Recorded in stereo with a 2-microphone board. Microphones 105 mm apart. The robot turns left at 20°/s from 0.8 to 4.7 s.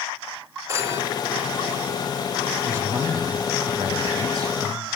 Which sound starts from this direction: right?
A phone ringing, at 0.7 s.